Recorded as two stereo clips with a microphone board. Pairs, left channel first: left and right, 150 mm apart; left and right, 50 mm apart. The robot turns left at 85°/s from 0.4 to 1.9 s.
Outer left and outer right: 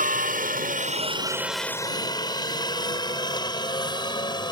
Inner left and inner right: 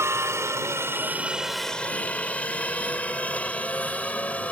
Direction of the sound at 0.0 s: 65° right (ahead or behind).